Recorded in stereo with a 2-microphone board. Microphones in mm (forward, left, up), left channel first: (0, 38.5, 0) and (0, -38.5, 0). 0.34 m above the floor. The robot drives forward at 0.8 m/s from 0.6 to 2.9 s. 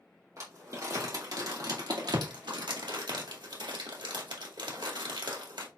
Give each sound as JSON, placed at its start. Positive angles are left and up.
{"t": 0.4, "sound": "crumpling", "side_deg": -45, "distance_m": 2.5}